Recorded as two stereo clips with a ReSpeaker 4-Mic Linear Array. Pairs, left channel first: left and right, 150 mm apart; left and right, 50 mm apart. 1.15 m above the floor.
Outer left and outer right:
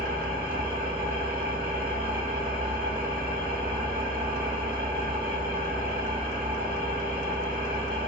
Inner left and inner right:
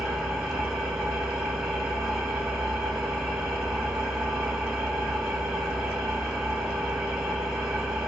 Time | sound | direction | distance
0.0 | an engine running | 10° right (ahead or behind) | 2 m